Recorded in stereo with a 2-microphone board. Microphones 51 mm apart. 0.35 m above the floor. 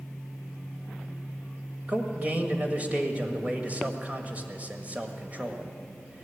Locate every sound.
1.9 s a man speaking: 30° right (ahead or behind), 1.5 m